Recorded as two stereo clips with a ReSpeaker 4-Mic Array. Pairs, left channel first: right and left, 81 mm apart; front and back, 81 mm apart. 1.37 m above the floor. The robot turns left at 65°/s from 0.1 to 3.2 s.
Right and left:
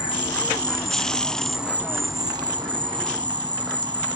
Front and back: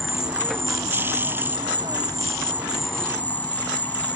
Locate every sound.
0.0 s an insect: 90° right; by 4.2 s 70° left